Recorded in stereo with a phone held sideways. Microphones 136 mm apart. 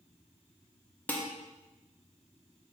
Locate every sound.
1.1 s dishes clattering: 10° left (ahead or behind), 0.6 m